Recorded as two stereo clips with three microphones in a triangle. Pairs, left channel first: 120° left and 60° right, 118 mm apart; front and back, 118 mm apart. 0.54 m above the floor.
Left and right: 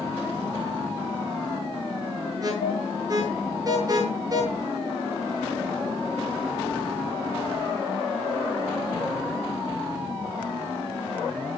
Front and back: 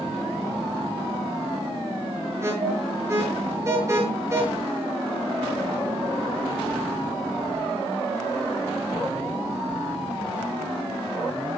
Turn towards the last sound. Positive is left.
turn(degrees=-115)